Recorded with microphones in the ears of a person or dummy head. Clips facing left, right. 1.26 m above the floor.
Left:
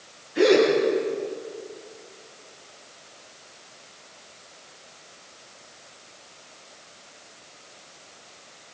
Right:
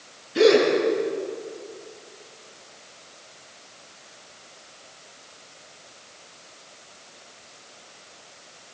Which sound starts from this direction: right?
A gasp, at 0.3 s.